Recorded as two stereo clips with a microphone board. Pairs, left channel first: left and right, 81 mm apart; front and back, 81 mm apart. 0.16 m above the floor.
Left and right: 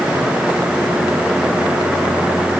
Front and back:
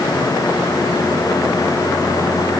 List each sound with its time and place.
Only background noise.